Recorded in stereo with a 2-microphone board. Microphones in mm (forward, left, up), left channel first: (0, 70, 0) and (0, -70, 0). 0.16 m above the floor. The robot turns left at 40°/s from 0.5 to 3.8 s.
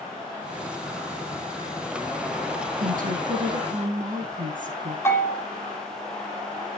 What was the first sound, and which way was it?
A woman speaking, 70° right.